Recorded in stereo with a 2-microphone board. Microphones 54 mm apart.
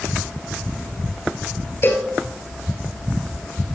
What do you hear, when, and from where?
1.8 s a cowbell: 40° left (ahead or behind), 1.8 m